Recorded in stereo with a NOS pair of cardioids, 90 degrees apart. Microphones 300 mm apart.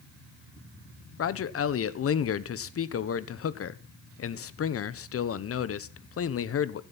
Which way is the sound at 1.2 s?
50° left.